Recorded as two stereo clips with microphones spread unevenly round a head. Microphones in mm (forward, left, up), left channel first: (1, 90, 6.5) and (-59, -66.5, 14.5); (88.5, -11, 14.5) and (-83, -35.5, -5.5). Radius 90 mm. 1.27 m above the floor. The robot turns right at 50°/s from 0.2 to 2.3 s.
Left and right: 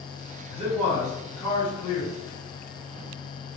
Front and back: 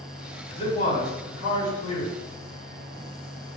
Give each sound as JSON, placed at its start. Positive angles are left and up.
{"t": 0.5, "sound": "a man speaking", "azimuth_deg": -55, "distance_m": 1.8}